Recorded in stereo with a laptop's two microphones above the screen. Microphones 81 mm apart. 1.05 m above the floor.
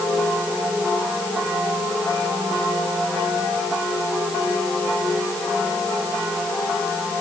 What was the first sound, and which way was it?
Only background noise.